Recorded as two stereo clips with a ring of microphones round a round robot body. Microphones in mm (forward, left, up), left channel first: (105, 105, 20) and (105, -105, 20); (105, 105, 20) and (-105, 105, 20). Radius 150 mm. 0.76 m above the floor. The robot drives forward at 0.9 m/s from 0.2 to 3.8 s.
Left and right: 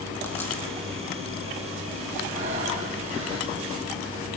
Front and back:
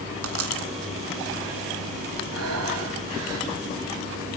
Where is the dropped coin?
175° left, 4 m.